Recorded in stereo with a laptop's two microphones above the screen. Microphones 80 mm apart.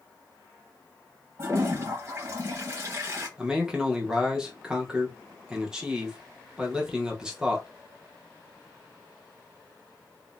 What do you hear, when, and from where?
1.4 s a toilet flushing: 35° right (ahead or behind), 0.9 m
3.4 s a man speaking: 10° right (ahead or behind), 0.8 m